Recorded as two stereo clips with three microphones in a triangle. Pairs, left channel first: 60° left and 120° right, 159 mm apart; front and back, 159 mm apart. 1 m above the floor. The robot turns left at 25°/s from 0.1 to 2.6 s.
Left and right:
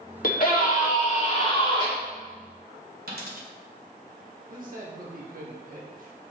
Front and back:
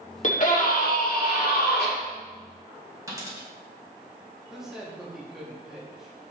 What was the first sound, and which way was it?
A scream, 40° left.